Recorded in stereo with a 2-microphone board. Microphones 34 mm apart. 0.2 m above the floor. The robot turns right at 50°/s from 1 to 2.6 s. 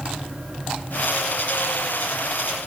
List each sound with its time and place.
Only background noise.